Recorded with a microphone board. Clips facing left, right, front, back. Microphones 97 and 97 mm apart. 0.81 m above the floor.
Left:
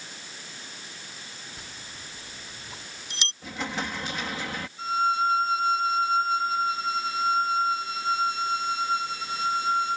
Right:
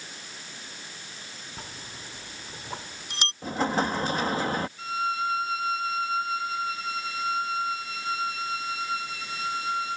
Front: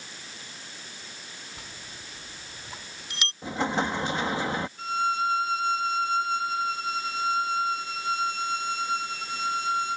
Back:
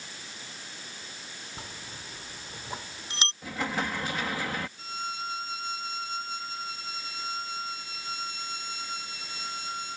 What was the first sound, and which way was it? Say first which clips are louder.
A bell: right 2 dB, back 2 dB; 125° right.